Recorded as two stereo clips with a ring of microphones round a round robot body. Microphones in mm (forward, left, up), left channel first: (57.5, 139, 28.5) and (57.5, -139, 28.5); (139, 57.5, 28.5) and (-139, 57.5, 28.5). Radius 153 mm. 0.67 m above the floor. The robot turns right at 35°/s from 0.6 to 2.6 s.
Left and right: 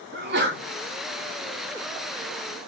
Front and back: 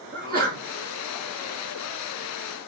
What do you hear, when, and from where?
0.1 s a sneeze: 130° right, 1.6 m